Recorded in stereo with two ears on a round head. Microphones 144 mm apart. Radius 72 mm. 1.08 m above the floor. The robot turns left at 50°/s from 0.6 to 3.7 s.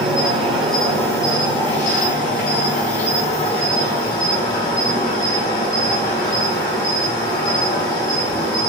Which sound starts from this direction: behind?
An insect, at 0.0 s.